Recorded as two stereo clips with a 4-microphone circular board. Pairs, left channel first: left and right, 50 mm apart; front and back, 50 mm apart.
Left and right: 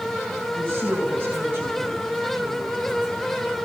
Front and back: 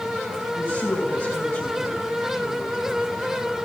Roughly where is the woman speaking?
Ahead right.